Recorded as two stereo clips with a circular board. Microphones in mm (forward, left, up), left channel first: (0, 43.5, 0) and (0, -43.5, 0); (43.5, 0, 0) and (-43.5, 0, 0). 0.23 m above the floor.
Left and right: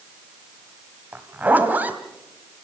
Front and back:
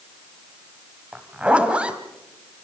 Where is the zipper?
125° right, 1.5 m.